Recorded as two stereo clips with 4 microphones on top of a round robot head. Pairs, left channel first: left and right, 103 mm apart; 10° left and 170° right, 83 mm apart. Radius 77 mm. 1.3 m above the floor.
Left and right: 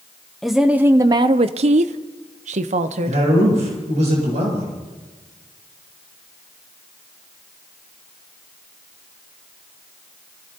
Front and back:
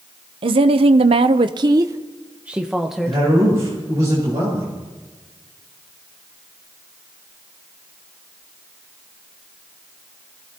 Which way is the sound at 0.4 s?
Straight behind.